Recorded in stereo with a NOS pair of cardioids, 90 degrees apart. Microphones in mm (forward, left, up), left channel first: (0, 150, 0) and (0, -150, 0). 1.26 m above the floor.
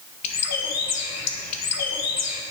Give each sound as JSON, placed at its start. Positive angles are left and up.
{"t": 0.2, "sound": "a bird", "azimuth_deg": 60, "distance_m": 1.6}